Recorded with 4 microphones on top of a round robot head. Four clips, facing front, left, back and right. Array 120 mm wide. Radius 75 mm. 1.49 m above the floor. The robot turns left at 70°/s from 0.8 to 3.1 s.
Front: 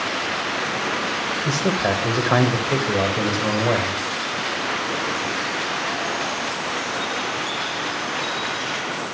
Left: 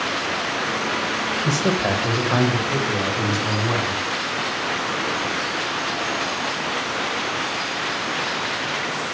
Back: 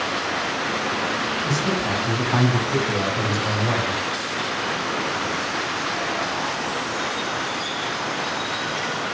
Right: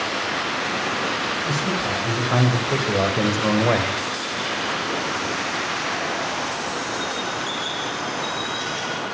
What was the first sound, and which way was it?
A man speaking, 60° left.